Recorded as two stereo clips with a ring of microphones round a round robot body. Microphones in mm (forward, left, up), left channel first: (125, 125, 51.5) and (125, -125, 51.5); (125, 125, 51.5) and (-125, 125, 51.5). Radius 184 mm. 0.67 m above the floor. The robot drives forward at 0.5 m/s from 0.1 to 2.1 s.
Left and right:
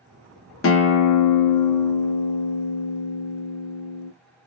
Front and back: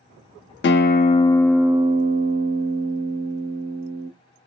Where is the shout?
I don't hear a shout.